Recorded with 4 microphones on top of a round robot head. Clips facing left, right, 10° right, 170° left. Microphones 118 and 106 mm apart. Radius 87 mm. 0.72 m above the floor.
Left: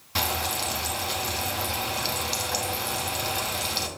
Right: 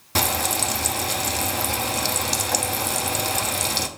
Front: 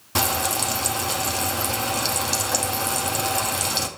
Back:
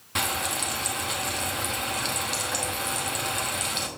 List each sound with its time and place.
0.1 s frying: 60° right, 0.8 m